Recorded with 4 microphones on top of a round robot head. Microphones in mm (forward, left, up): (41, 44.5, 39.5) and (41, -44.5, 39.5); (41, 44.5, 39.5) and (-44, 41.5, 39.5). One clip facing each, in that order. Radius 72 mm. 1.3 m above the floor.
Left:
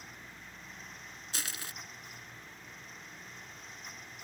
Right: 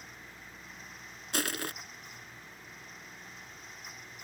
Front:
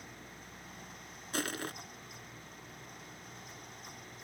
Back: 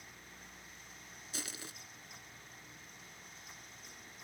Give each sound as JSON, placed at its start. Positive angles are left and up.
{"t": 1.3, "sound": "crushing", "azimuth_deg": -60}